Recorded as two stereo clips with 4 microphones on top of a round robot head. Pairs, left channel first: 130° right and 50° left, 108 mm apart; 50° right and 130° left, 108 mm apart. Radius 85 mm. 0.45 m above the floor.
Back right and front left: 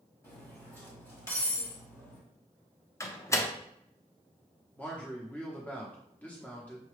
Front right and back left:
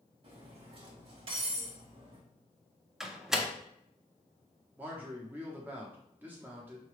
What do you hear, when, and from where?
0.2 s cutlery clinking: 165° left, 1.6 m
3.0 s a door slam: 150° right, 0.8 m
4.8 s a man speaking: 175° left, 0.9 m